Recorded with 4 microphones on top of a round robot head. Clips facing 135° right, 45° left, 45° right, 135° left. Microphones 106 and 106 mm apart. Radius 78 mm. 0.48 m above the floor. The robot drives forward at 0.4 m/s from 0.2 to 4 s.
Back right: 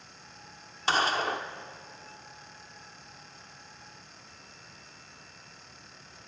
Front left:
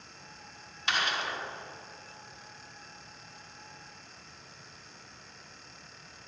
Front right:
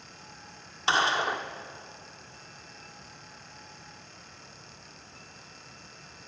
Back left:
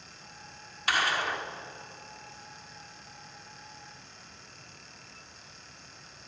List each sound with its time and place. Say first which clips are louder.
0.9 s a gunshot: back right 5 dB, front right 3 dB; 95° right, 1.4 m; by 1.5 s 110° right, 1.4 m